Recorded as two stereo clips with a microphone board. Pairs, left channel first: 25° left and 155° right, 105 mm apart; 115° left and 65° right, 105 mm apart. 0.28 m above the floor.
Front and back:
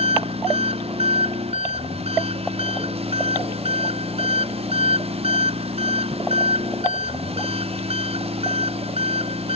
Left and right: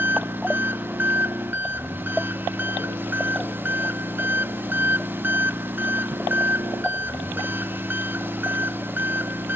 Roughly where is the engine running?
Behind right.